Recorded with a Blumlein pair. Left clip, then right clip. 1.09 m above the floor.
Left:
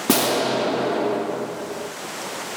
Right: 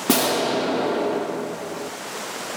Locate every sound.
0.1 s an explosion: 5° left, 0.5 m